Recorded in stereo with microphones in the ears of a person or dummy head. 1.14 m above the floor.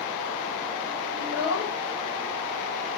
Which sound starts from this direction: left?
A child speaking, at 1.2 s.